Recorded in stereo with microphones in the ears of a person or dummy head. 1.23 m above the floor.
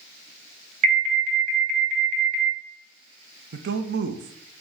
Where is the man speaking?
60° right (ahead or behind), 0.8 m.